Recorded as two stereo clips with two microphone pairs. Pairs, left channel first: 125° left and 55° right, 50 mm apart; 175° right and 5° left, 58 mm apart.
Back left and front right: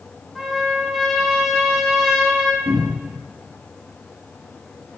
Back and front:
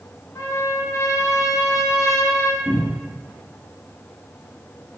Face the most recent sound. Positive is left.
turn(degrees=-50)